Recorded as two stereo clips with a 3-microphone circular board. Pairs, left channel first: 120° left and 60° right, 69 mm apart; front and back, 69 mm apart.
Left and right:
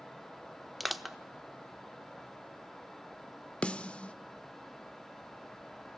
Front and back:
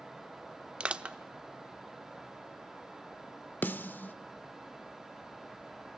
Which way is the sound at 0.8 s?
145° right.